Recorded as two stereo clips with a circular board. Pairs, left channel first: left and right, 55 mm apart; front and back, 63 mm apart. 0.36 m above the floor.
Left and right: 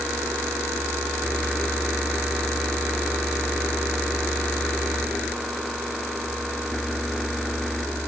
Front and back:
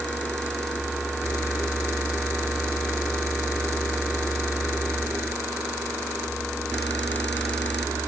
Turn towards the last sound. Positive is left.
No sound to turn to.